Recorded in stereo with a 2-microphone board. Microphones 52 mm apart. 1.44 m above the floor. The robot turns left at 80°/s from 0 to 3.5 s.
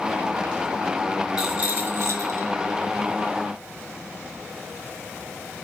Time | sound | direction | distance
1.4 | a rattle | 10° right | 0.8 m